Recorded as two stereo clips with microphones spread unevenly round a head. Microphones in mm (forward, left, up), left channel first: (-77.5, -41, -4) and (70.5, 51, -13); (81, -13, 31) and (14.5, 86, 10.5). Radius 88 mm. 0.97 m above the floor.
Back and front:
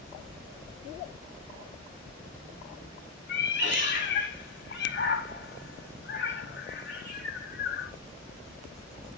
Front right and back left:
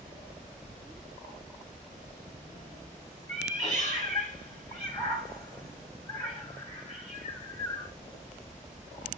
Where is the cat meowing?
125° right, 1.9 m.